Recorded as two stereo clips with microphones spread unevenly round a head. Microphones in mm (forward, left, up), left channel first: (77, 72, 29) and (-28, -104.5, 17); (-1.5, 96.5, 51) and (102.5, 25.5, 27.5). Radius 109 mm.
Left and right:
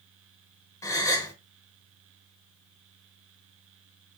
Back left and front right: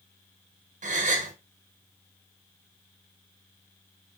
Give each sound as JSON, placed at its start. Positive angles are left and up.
{"t": 0.8, "sound": "a gasp", "azimuth_deg": -15, "distance_m": 1.5}